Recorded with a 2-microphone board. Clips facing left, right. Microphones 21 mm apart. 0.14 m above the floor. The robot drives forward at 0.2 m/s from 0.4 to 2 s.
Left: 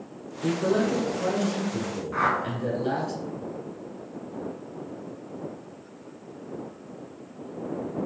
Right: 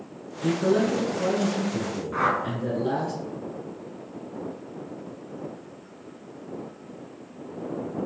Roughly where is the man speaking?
Left.